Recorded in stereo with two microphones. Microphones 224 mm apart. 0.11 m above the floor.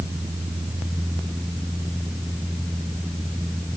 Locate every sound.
Only background noise.